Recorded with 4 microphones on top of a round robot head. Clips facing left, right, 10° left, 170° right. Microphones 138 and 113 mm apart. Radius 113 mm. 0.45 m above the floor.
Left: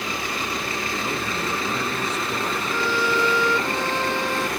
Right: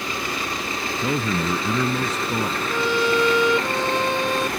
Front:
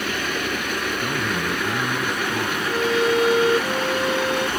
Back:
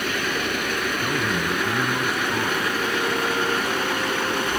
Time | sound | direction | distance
1.0 | a man speaking | 85° right | ?
2.7 | a violin | 15° right | ?